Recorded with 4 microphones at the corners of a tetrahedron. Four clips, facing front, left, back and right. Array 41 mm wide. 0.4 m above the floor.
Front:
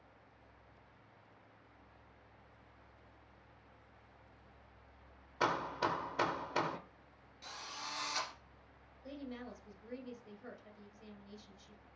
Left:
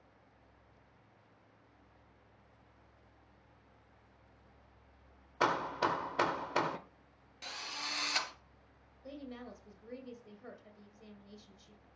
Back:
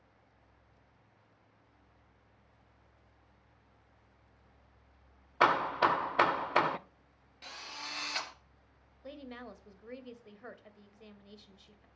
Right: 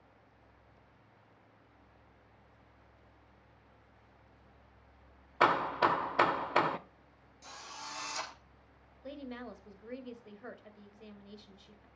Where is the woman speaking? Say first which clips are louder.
Right 3 dB, back 1 dB; 135° right, 2.0 m.